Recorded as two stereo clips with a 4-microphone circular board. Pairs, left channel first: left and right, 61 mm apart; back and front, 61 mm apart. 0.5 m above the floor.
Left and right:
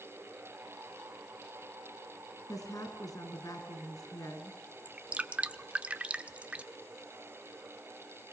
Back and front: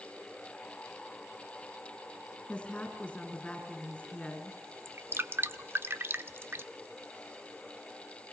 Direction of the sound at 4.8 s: 30° right.